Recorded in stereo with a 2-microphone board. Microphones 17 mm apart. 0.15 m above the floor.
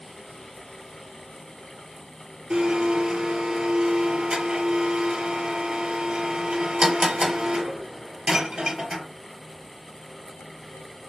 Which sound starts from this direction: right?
A blender, at 2.5 s.